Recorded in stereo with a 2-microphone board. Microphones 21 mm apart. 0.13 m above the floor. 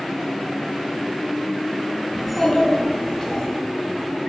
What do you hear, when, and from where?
2.1 s a child speaking: 15° right (ahead or behind), 0.7 m; by 3.4 s 45° left (ahead or behind), 1.5 m